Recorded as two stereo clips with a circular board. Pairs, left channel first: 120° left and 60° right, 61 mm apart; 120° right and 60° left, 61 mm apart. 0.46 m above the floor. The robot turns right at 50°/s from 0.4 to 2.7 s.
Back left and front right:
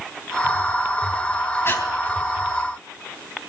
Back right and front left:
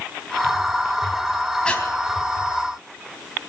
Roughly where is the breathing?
Behind.